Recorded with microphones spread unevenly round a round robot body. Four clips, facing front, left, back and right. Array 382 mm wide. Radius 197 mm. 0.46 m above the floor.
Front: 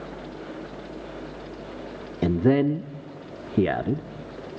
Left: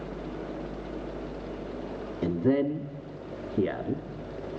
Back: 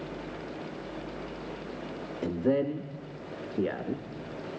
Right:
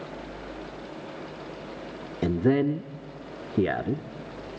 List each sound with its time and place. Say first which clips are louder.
2.2 s a man speaking: right 2 dB, front 7 dB; 20° right, 0.9 m